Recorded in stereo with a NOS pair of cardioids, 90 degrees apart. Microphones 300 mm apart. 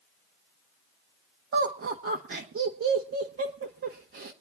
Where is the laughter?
45° right, 1.9 m.